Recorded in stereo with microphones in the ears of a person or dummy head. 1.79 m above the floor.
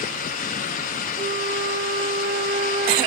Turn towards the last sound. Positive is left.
turn(degrees=-45)  # may be behind; listen again after turning